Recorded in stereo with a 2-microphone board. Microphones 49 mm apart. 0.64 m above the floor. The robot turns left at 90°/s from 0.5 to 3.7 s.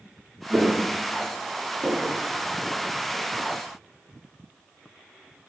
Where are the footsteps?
5° right (ahead or behind), 1.3 m; by 3.2 s 10° right (ahead or behind), 1.2 m.